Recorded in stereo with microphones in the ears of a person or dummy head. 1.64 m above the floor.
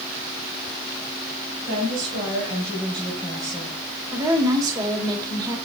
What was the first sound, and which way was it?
A woman speaking, 50° right (ahead or behind).